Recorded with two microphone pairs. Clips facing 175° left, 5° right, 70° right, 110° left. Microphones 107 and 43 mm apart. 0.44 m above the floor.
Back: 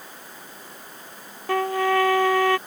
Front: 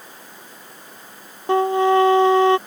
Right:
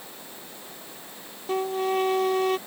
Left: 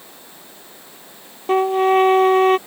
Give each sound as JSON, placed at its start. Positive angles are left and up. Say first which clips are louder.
{"t": 1.5, "sound": "a trumpet", "louder": "front 6 dB, left 10 dB", "azimuth_deg": 65}